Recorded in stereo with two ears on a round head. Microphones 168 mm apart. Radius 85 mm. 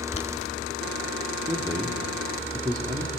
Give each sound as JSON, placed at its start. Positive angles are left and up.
{"t": 0.1, "sound": "boiling", "side_deg": 35, "distance_m": 1.5}
{"t": 1.5, "sound": "a man speaking", "side_deg": -20, "distance_m": 1.4}